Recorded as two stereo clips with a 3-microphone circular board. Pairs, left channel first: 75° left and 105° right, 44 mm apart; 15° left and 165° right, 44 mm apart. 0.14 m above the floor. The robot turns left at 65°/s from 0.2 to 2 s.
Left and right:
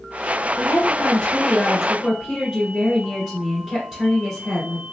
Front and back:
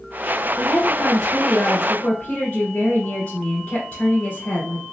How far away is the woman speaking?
About 1.4 m.